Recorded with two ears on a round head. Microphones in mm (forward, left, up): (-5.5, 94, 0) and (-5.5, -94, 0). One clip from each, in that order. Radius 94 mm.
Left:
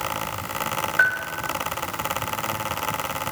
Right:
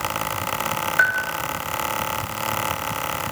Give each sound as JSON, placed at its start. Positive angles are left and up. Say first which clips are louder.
{"t": 1.0, "sound": "a bell", "louder": "right 1 dB", "side_deg": -5, "distance_m": 0.9}